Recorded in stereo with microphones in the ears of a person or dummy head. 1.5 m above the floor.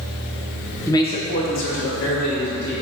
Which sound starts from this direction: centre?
A man speaking, at 0.9 s.